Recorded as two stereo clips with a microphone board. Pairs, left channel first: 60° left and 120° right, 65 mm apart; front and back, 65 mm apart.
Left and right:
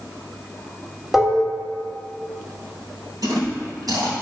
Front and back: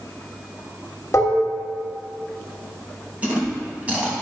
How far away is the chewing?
About 2.5 m.